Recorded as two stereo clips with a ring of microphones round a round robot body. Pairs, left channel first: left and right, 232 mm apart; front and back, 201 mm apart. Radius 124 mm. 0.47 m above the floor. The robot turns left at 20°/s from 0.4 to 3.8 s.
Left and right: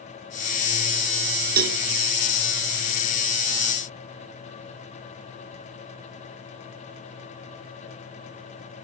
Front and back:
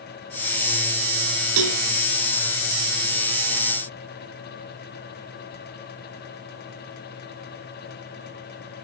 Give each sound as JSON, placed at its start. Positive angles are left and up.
{"t": 1.6, "sound": "a cowbell", "azimuth_deg": -145, "distance_m": 0.7}